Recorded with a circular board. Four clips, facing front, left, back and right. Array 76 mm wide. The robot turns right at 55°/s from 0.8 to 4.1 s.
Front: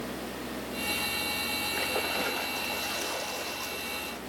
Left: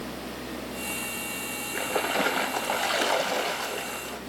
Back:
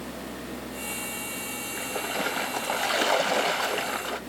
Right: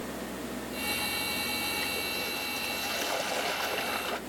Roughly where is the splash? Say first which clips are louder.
Left 8 dB, back 2 dB; left.